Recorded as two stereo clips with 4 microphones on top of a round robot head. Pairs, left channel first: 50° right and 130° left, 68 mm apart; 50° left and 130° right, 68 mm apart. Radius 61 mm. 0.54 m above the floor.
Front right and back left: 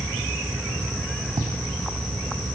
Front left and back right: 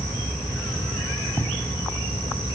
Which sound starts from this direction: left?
Writing, at 1.4 s.